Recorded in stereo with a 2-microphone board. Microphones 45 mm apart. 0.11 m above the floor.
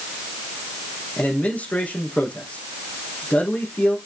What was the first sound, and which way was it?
A man speaking, 30° left (ahead or behind).